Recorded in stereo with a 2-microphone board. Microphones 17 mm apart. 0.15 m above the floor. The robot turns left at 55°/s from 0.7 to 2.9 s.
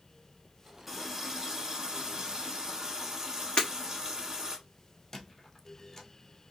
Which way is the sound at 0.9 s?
20° right.